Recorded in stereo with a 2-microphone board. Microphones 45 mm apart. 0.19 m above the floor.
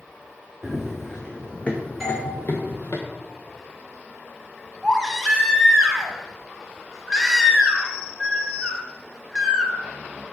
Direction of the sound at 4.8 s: 5° left (ahead or behind).